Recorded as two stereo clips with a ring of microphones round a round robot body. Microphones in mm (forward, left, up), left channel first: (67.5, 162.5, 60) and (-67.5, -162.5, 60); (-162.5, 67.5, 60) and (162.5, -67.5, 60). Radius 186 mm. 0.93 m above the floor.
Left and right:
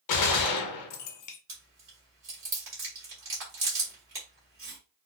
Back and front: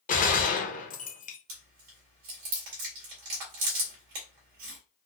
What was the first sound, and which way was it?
A gunshot, 95° left.